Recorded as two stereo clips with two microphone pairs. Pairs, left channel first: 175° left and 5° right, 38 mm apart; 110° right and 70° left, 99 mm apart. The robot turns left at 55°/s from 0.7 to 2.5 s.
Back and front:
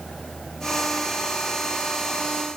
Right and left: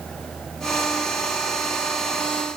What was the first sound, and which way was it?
Only background noise.